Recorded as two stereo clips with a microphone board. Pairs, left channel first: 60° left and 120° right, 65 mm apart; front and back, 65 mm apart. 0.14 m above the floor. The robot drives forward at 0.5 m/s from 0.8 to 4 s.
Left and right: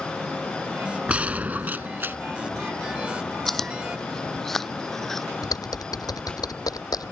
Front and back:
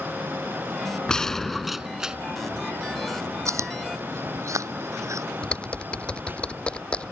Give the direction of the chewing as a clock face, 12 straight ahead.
7 o'clock.